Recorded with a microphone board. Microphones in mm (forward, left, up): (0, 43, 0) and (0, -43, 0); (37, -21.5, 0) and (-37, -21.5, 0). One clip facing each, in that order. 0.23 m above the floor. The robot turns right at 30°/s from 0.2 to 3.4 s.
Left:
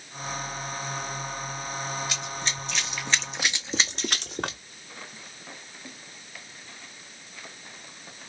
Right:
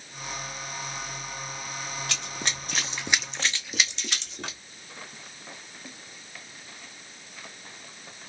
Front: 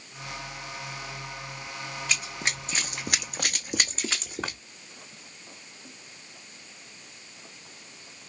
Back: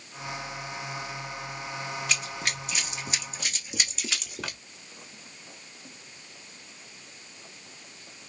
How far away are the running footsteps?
About 0.9 m.